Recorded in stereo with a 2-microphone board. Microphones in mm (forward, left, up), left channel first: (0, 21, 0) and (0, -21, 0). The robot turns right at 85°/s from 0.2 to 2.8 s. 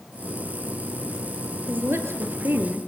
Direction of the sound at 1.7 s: 135° right.